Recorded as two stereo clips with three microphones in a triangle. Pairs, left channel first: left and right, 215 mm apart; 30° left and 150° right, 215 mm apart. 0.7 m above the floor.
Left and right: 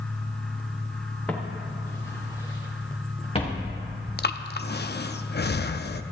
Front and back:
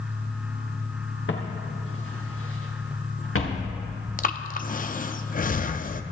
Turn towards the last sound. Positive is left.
turn(degrees=70)